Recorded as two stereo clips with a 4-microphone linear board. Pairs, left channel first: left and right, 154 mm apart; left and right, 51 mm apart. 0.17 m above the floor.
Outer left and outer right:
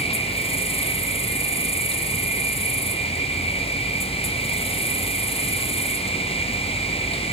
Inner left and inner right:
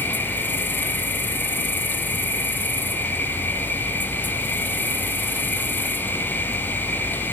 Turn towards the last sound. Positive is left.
turn(degrees=40)  # may be behind; listen again after turning